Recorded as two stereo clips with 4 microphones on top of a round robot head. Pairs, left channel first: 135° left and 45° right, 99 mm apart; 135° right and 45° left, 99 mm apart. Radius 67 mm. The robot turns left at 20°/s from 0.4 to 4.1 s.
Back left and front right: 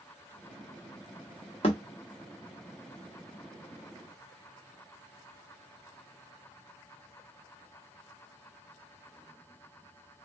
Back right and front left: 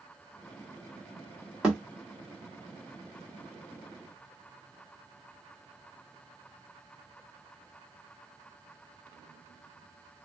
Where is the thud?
125° left, 1.1 m.